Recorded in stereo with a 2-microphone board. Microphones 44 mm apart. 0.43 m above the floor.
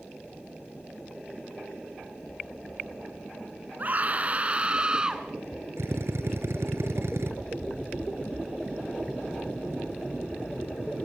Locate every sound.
3.8 s a scream: 40° right (ahead or behind), 4 m; by 5.3 s 15° right (ahead or behind), 4 m
5.8 s a drill: 75° right (ahead or behind), 3.5 m